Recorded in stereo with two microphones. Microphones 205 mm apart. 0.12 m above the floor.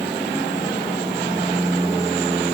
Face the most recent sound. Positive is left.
No sound to turn to.